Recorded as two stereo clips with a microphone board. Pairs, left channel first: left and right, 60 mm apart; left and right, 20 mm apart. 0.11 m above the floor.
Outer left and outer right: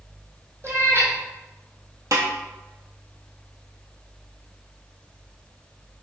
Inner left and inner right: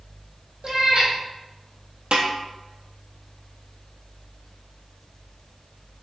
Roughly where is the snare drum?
Right.